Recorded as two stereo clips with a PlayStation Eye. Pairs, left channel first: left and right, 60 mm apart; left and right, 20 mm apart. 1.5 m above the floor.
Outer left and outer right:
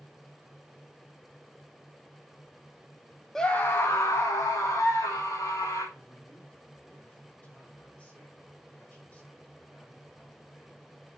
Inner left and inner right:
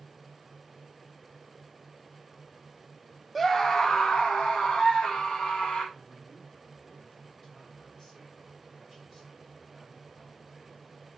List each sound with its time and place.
3.4 s a scream: 10° left (ahead or behind), 0.7 m; by 5.8 s 75° left (ahead or behind), 4 m
5.9 s a man speaking: 25° left (ahead or behind), 5.5 m